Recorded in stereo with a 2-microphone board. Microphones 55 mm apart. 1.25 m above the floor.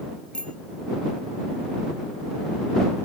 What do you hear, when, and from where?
0.3 s a bicycle bell: 20° left (ahead or behind)